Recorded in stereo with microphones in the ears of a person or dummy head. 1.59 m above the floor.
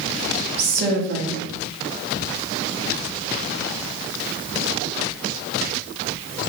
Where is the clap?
No clap in this recording.